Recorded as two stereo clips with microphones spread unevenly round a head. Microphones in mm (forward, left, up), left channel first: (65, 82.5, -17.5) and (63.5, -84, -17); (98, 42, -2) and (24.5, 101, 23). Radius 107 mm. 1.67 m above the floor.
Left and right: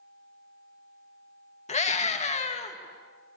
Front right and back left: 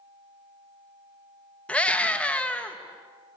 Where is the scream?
40° left, 2.5 m.